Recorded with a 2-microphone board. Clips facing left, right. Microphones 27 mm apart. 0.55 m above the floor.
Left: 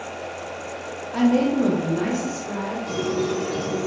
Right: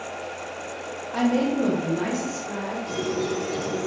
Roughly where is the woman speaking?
Centre.